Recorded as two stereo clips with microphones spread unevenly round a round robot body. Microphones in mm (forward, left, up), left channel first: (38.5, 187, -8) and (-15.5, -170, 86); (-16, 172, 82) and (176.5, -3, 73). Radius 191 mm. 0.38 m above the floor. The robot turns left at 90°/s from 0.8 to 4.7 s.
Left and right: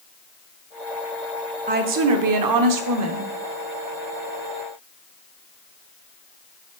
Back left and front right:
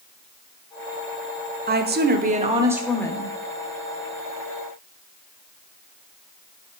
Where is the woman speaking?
20° right, 1.0 m; by 3.3 s 170° right, 1.0 m.